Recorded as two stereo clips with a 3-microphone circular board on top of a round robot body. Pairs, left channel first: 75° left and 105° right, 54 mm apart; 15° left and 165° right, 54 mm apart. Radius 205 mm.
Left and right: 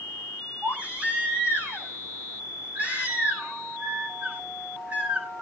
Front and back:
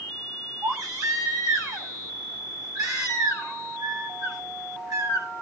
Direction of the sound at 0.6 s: 170° right.